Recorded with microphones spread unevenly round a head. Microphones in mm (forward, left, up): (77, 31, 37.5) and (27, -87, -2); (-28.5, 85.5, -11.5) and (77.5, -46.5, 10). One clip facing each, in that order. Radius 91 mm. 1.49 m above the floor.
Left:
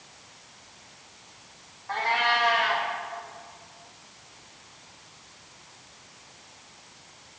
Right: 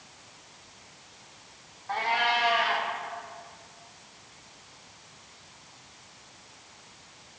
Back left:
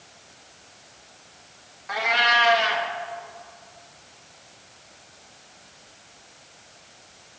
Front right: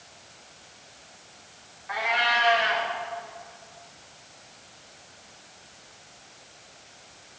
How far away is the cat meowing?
About 0.9 m.